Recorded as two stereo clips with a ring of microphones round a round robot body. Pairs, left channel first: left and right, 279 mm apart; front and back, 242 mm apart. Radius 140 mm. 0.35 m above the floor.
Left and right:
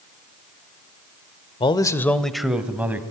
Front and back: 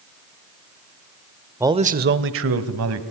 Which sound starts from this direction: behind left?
A man speaking, at 1.6 s.